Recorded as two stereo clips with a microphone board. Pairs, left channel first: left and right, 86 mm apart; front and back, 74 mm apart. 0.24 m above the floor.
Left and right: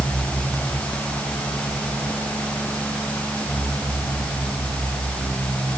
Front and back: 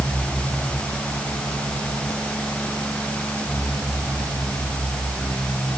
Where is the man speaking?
No man speaking in this recording.